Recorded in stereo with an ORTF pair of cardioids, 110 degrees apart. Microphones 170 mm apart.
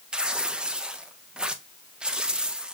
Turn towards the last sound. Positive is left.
turn(degrees=-5)